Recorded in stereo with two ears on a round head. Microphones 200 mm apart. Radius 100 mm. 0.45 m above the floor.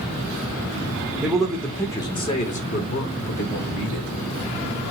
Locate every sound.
1.2 s a man speaking: 5° right (ahead or behind), 1.2 m; by 4.1 s 60° left (ahead or behind), 1.9 m